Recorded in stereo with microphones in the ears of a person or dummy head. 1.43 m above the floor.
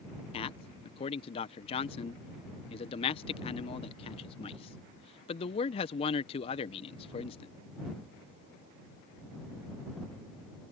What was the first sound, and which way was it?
A man speaking, 35° left (ahead or behind).